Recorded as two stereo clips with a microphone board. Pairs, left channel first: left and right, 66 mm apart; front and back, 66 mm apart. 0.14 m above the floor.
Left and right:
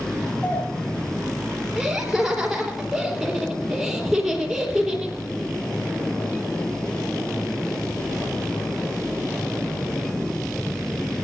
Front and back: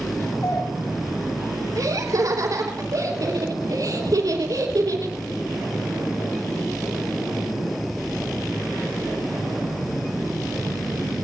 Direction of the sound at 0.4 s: 25° left.